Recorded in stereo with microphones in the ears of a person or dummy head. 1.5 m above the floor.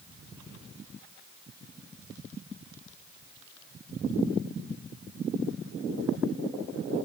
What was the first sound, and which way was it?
Only background noise.